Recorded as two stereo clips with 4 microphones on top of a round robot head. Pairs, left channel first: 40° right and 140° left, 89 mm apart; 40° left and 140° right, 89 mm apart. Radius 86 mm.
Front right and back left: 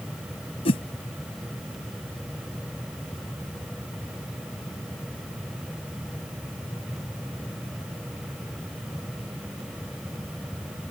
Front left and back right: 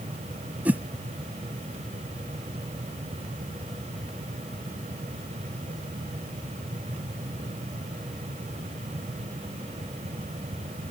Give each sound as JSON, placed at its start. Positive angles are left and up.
{"t": 0.7, "sound": "a whoosh", "azimuth_deg": -65}